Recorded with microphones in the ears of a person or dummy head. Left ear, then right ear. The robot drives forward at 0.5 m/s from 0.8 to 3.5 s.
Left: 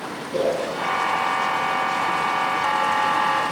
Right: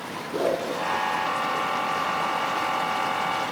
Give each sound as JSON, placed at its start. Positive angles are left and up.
{"t": 0.3, "sound": "a whoosh", "side_deg": 5, "distance_m": 1.1}